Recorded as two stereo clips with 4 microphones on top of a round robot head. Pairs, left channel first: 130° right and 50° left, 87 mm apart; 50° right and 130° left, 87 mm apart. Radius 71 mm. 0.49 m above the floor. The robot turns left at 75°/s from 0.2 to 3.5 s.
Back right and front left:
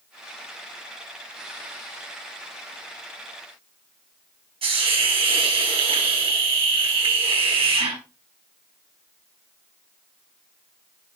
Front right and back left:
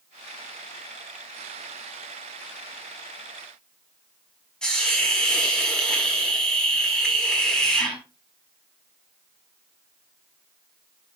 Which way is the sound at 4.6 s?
35° left.